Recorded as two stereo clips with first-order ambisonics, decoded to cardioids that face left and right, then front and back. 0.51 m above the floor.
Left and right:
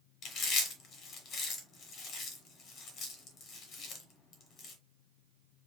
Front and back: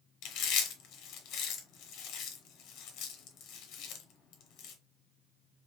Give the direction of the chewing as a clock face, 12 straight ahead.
11 o'clock.